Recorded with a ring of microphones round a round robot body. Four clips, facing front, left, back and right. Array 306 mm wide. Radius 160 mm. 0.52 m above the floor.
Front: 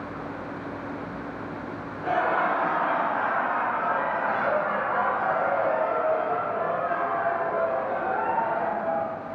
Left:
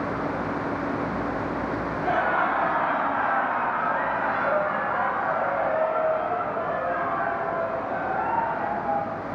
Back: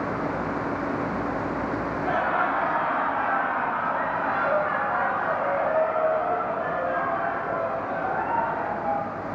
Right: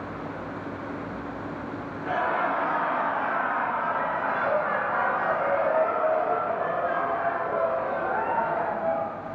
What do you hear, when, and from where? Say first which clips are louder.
2.0 s laughter: left 2 dB, front 2 dB; 95° left, 1.8 m; by 9.1 s 90° right, 3 m